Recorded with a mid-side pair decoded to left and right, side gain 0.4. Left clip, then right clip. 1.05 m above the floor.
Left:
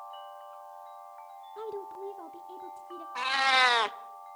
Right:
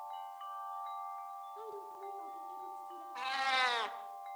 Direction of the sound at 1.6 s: 65° left.